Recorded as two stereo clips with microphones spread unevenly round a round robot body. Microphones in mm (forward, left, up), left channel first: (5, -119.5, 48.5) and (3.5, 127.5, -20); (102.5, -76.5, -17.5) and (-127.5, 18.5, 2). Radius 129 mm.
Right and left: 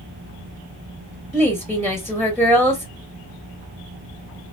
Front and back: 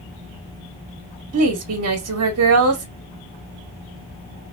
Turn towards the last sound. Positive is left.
turn(degrees=165)